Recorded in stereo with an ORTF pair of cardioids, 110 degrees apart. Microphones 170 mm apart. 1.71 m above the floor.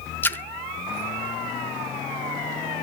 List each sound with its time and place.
0.2 s a splash: 10° left, 0.6 m